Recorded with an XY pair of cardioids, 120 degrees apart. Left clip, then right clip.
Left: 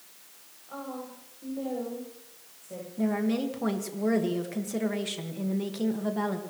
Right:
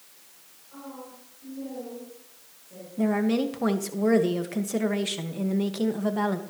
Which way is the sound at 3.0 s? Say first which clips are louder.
Right 4 dB; 30° right.